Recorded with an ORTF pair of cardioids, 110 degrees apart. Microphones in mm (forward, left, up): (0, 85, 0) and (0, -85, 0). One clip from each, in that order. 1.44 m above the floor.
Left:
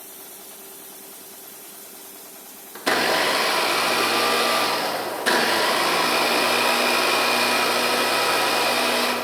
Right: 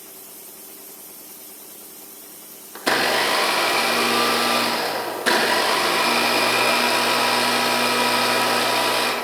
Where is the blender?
10° right, 1.3 m.